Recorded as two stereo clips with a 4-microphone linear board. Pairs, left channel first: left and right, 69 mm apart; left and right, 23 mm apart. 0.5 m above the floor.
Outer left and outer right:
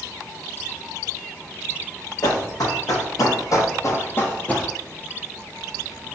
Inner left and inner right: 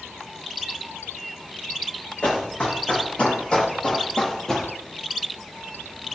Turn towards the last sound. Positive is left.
turn(degrees=15)  # may be behind; listen again after turning